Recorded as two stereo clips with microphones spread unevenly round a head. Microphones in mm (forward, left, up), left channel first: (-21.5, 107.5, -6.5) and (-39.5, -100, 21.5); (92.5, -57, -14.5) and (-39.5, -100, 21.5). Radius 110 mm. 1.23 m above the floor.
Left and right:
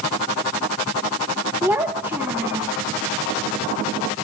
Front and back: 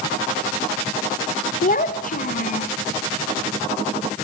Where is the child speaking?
15° right, 0.7 m.